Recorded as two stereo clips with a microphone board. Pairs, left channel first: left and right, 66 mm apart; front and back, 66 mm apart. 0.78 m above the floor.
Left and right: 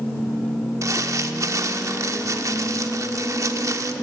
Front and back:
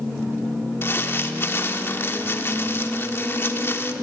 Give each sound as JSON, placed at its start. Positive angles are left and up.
{"t": 0.8, "sound": "crumpling", "azimuth_deg": -55, "distance_m": 1.3}